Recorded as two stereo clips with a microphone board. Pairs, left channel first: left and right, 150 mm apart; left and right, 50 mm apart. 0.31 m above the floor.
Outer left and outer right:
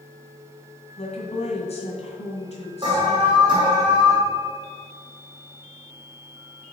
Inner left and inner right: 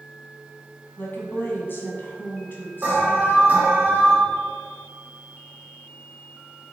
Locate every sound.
1.0 s a woman speaking: 45° left (ahead or behind), 2 m
2.8 s an alarm: 30° right (ahead or behind), 2.5 m